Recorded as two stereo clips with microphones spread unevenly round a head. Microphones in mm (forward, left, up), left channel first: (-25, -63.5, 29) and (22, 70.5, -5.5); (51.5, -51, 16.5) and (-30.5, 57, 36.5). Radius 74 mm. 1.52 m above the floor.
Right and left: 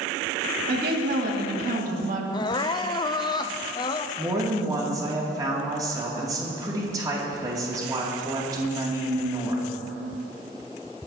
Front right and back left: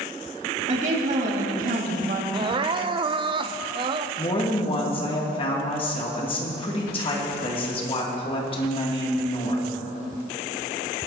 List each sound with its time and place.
0.7 s a woman speaking: 85° left, 2.5 m; by 2.2 s 105° left, 2 m
2.3 s crying: 175° right, 0.5 m
4.2 s a woman speaking: straight ahead, 2.5 m